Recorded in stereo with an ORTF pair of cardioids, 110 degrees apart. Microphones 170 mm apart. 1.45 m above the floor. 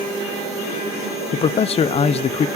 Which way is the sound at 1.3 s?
35° left.